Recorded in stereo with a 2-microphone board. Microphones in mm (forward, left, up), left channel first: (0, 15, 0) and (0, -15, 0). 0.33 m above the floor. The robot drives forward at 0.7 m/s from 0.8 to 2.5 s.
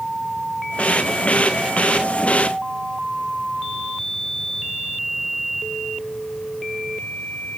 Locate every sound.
Only background noise.